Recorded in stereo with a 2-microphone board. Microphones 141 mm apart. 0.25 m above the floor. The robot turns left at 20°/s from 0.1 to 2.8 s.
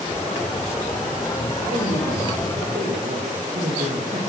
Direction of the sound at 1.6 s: 80° right.